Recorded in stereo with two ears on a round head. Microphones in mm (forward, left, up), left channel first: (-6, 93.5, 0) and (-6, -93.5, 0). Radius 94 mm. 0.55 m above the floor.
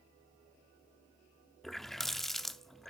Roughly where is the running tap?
Centre.